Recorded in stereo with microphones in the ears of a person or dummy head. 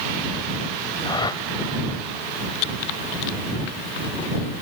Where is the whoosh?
20° left (ahead or behind).